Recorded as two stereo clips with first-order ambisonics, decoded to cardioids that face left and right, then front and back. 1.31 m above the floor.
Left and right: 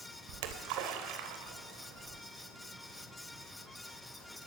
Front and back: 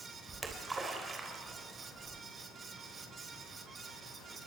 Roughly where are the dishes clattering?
No dishes clattering in this recording.